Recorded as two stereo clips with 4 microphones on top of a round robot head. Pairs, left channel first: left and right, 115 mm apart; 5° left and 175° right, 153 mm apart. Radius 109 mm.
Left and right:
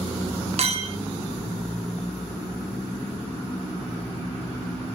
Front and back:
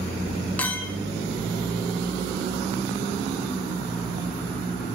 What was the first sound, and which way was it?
A clink, 80° right.